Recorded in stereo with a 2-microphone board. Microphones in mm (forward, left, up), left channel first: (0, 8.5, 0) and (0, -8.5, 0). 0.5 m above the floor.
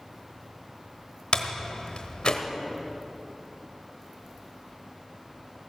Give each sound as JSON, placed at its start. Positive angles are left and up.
{"t": 1.3, "sound": "a door slam", "side_deg": 55, "distance_m": 1.2}